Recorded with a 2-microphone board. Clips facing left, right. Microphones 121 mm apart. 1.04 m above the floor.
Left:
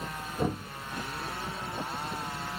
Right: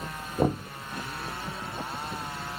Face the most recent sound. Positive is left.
turn(degrees=-50)  # may be behind; listen again after turning